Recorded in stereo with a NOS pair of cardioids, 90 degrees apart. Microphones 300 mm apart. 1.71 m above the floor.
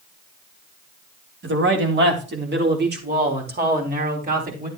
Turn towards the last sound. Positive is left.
turn(degrees=-30)